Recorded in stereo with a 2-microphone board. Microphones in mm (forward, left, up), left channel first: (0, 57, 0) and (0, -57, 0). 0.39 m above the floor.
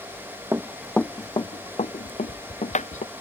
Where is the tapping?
85° left.